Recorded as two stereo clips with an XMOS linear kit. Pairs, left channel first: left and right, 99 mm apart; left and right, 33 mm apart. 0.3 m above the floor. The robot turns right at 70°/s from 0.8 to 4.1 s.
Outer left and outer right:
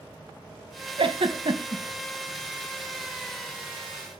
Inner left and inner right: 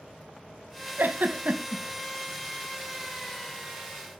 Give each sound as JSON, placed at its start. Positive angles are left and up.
{"t": 1.0, "sound": "a giggle", "side_deg": -70, "distance_m": 0.7}